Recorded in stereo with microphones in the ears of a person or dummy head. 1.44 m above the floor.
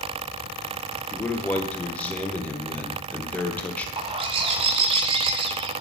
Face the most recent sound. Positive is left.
turn(degrees=-30)  # may be behind; listen again after turning